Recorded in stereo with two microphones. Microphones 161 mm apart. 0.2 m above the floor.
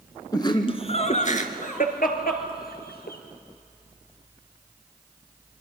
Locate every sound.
0.3 s laughter: 25° left (ahead or behind), 2.0 m; by 3.2 s 75° left (ahead or behind), 4 m